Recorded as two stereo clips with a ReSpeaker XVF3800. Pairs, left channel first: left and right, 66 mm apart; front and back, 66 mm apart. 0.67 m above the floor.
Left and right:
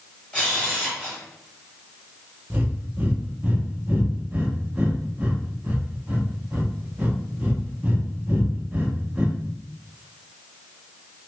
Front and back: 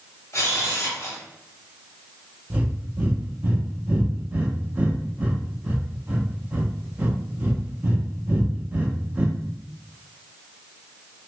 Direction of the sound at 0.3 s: 25° left.